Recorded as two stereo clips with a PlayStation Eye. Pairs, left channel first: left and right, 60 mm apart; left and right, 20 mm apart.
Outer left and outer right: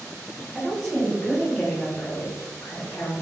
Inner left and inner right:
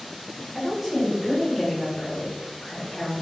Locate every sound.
0.5 s a woman speaking: 15° right (ahead or behind), 1.9 m; by 3.2 s 50° left (ahead or behind), 2.0 m